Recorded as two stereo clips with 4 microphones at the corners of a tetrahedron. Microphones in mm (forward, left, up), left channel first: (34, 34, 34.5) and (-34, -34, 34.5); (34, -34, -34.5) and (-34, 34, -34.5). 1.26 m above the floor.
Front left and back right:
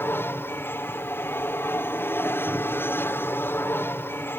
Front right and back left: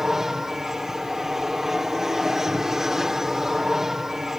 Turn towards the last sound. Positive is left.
turn(degrees=55)